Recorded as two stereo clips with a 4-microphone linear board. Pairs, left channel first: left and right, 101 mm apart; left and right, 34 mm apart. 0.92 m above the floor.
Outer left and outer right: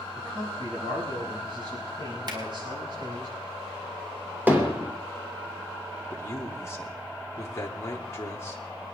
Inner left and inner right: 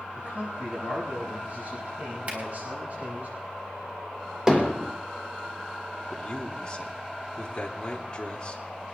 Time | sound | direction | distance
0.1 | a man speaking | 55° right (ahead or behind) | 7 m
2.3 | a finger snap | 45° right (ahead or behind) | 3.5 m
4.5 | hammering | 20° right (ahead or behind) | 3 m
6.1 | a man speaking | 25° left (ahead or behind) | 2.5 m